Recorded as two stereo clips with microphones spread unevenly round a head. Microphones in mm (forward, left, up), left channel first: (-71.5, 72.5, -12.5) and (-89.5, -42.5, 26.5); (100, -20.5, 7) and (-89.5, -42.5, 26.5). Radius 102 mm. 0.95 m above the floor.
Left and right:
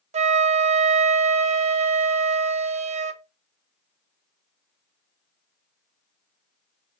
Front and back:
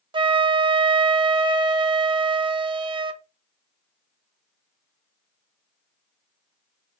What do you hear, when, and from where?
0.1 s a flute: 115° right, 0.5 m